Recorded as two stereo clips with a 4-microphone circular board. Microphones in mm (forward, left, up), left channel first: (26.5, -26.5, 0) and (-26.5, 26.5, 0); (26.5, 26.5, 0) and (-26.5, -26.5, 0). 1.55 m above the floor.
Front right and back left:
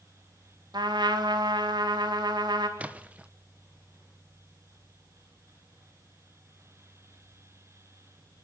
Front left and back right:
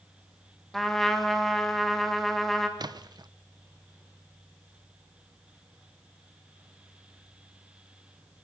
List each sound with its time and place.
0.7 s a trumpet: 130° left, 3 m
2.8 s a splash: 155° right, 1.0 m